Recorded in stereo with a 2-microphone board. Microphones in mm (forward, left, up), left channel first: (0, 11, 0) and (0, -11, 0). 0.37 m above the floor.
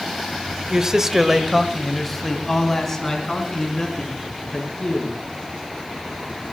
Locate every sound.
0.7 s a man speaking: 35° right (ahead or behind), 1.1 m; by 5.1 s 20° left (ahead or behind), 5 m